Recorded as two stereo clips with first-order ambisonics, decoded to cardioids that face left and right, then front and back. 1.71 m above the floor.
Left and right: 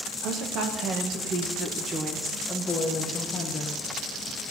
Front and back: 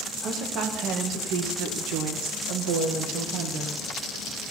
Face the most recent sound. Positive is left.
turn(degrees=160)